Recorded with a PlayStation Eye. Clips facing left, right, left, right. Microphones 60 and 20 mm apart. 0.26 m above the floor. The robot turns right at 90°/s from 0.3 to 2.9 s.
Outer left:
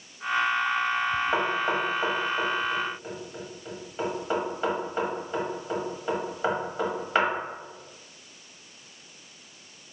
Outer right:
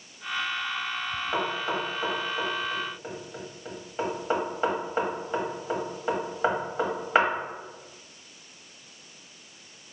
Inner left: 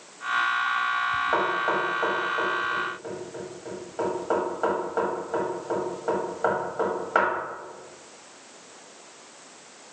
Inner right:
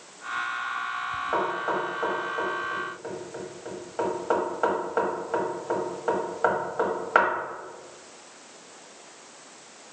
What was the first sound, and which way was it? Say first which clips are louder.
Knocking: outer left 3 dB, inner left 3 dB; 25° left (ahead or behind).